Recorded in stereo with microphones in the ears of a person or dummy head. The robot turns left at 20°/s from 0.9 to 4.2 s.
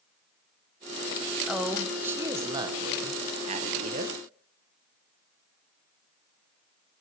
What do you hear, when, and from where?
1.5 s a woman speaking: straight ahead, 0.7 m; by 4.2 s 55° right, 0.7 m